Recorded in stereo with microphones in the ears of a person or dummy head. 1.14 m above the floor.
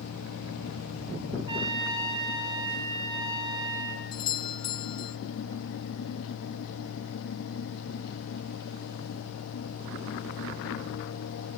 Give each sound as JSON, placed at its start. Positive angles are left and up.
{"t": 0.0, "sound": "a fan", "side_deg": 75, "distance_m": 1.0}
{"t": 1.5, "sound": "a trumpet", "side_deg": -25, "distance_m": 3.5}
{"t": 4.1, "sound": "a doorbell", "side_deg": 25, "distance_m": 1.2}